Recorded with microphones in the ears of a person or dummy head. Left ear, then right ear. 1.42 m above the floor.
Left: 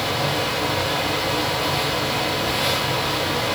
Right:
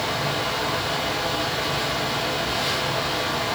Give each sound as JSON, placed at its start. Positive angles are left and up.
{"t": 0.0, "sound": "a fan", "side_deg": 5, "distance_m": 7.5}